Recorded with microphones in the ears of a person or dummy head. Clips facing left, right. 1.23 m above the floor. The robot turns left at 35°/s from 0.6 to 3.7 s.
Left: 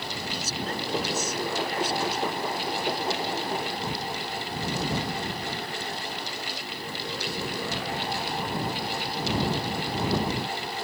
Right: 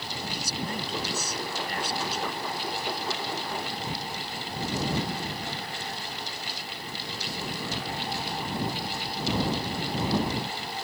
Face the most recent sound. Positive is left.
turn(degrees=-120)